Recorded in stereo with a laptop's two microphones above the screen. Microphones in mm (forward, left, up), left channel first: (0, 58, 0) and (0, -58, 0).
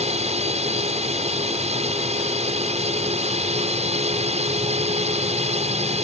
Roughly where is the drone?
Right.